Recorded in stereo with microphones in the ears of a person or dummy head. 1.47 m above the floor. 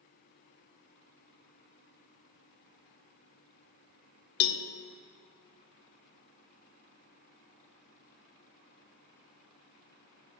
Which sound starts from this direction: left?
A cowbell, at 4.4 s.